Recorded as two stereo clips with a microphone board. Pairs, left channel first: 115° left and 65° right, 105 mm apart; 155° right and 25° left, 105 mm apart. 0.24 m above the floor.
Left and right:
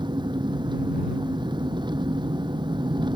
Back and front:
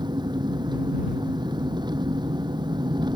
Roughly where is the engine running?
Ahead right.